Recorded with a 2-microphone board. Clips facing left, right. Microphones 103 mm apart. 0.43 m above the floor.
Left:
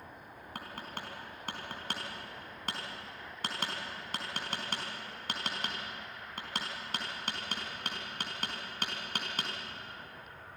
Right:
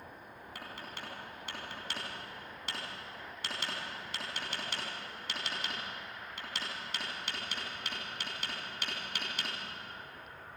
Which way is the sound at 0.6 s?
45° left (ahead or behind).